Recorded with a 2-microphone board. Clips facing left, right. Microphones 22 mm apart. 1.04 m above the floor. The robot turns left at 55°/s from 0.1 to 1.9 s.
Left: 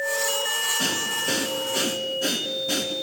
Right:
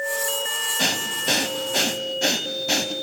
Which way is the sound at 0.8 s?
50° right (ahead or behind).